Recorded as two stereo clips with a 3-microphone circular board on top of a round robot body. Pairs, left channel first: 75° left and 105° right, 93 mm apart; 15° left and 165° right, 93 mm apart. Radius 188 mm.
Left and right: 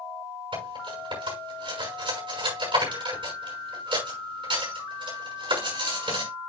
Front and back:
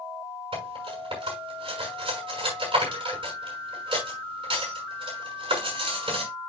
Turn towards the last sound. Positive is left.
turn(degrees=-135)